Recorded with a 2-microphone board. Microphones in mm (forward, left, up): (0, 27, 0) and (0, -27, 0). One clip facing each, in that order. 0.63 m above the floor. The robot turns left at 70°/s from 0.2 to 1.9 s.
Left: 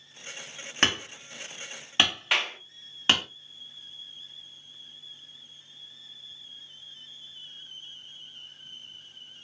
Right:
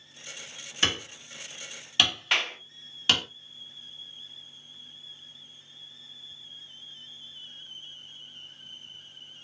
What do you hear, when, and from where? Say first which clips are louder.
0.8 s hammering: left 2 dB; 50° left (ahead or behind), 1.4 m; by 3.2 s 25° left (ahead or behind), 1.4 m
2.3 s a clap: even; 5° left (ahead or behind), 0.8 m